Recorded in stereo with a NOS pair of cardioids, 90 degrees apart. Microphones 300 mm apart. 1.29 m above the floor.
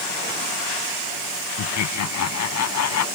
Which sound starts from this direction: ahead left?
Laughter, at 1.6 s.